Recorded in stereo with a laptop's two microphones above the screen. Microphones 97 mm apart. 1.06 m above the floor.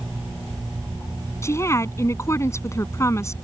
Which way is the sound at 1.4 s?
30° left (ahead or behind).